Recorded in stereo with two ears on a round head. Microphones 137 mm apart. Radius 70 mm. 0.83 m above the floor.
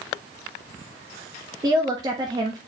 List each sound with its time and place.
1.6 s a woman speaking: 25° right (ahead or behind), 1.1 m